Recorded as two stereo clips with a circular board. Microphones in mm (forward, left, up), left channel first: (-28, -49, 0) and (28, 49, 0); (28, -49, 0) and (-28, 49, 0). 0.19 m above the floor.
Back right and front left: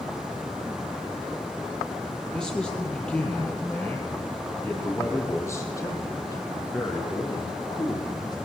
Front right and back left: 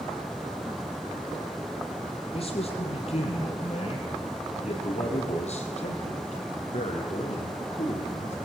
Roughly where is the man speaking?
Ahead right.